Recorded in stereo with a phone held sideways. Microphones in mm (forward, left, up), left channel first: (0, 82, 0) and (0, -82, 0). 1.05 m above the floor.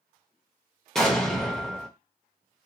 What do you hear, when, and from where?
0.9 s an explosion: 5° left (ahead or behind), 0.7 m